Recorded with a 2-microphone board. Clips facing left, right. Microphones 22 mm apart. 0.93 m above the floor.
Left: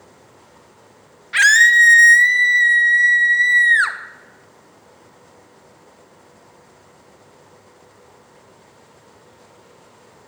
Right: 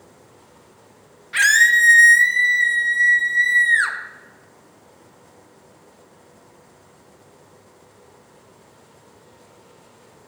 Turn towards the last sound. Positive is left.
turn(degrees=20)  # may be behind; listen again after turning